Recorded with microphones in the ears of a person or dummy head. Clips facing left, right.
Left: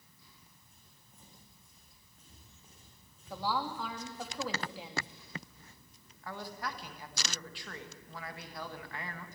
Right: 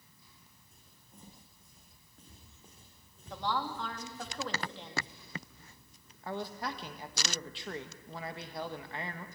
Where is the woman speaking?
10° left (ahead or behind), 2.5 m.